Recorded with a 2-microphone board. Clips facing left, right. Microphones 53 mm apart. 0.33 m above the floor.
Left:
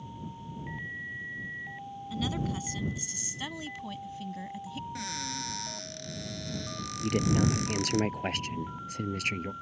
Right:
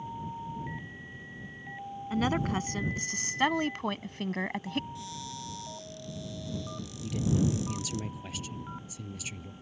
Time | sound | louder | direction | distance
2.1 | a woman speaking | right 5 dB | 45° right (ahead or behind) | ?
5.0 | a cupboard door | left 4 dB | 65° left (ahead or behind) | ?
7.0 | a woman speaking | left 2 dB | 55° left (ahead or behind) | ?